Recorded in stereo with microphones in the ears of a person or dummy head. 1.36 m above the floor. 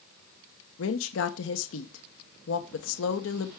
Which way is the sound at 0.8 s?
80° left.